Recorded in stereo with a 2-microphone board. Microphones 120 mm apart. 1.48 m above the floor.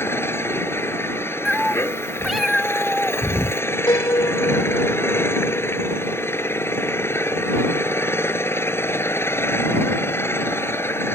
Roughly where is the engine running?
Centre.